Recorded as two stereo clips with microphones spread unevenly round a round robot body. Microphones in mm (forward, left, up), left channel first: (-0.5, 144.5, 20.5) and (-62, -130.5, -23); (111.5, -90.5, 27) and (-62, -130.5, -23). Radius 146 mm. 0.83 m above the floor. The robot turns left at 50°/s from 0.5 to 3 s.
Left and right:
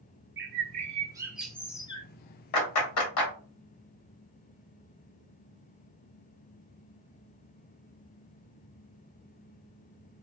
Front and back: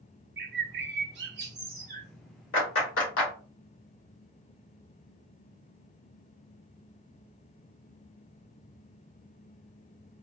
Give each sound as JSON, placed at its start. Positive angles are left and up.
{"t": 0.4, "sound": "a bird", "azimuth_deg": -155, "distance_m": 0.5}
{"t": 2.5, "sound": "a clap", "azimuth_deg": 55, "distance_m": 1.5}